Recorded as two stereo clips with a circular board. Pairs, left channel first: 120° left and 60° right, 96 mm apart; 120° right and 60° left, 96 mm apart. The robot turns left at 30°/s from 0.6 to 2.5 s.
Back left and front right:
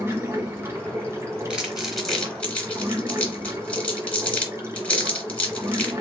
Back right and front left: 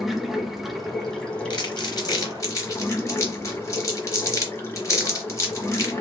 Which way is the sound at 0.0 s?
25° right.